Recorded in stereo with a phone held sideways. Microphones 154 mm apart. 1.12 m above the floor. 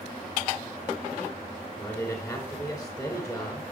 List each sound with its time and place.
1.8 s a man speaking: 25° left (ahead or behind), 4.5 m